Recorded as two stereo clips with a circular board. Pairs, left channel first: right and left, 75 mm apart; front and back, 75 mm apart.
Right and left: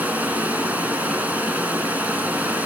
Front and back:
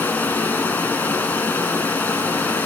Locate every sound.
0.0 s running water: 40° left, 1.1 m